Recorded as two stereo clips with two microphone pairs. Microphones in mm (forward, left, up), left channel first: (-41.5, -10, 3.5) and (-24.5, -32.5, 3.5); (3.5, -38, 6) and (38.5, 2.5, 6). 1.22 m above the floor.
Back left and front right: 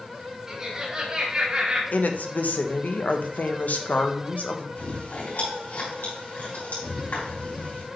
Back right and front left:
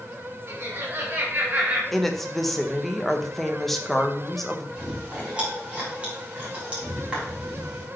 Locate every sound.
0.5 s laughter: 15° left, 2.5 m; by 1.8 s 5° right, 2.5 m
1.9 s a woman speaking: 145° left, 1.0 m
4.8 s chewing: 115° left, 4 m